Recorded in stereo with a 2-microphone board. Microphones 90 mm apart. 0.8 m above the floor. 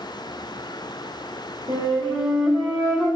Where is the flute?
75° right (ahead or behind), 0.9 m.